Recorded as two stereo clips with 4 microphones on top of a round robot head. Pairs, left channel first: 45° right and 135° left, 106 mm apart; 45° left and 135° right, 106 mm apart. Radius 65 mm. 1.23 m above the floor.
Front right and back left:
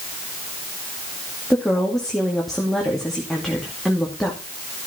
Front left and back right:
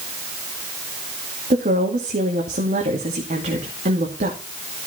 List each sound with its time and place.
1.5 s a woman speaking: 135° right, 2.5 m